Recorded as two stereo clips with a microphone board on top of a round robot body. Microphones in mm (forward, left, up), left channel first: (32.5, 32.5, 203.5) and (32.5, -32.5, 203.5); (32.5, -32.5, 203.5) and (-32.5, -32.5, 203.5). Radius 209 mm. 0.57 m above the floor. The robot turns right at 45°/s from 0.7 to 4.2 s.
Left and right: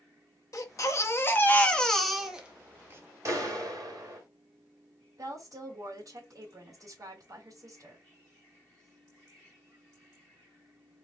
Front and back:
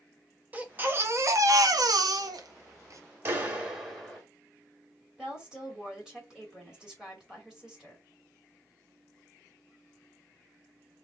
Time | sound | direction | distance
0.5 | a baby crying | 120° left | 1.0 m
3.2 | a clap | 125° right | 2.5 m
5.2 | a woman speaking | 100° right | 2.5 m